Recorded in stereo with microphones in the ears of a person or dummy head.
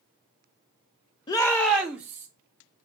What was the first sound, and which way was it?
A shout, 25° left (ahead or behind).